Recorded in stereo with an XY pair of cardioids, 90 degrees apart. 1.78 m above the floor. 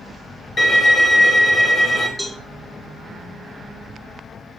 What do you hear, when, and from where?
0.6 s a violin: 40° left, 1.5 m
2.2 s a cowbell: 10° left, 1.9 m